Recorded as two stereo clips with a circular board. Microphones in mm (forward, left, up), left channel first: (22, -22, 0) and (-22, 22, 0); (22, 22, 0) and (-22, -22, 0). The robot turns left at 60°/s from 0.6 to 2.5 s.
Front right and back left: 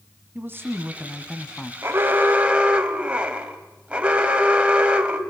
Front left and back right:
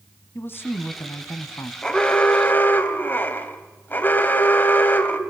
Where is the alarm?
115° left, 1.6 m; by 5.2 s 75° left, 1.6 m.